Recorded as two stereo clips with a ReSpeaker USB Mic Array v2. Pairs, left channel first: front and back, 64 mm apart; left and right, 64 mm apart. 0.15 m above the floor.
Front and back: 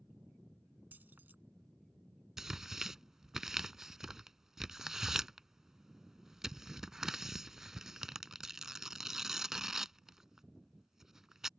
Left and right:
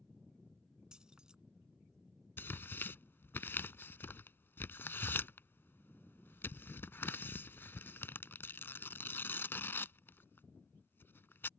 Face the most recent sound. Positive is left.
turn(degrees=100)